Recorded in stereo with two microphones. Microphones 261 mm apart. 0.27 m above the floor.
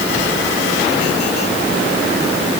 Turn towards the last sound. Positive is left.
No sound to turn to.